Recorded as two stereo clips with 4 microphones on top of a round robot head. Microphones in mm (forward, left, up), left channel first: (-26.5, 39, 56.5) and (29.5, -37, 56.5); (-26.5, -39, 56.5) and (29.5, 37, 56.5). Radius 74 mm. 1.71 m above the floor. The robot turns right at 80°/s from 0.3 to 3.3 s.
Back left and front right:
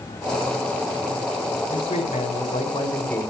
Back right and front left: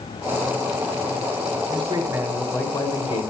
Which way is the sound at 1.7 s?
90° left.